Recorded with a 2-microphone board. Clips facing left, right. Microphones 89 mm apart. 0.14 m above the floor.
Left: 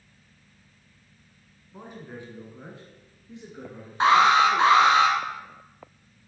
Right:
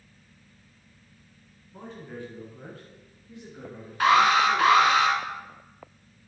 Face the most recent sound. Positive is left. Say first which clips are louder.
# left 2 dB
turn(degrees=25)  # may be behind; listen again after turning